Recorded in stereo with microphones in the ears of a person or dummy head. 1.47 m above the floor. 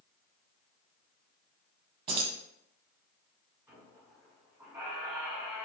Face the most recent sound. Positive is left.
turn(degrees=-5)  # may be behind; listen again after turning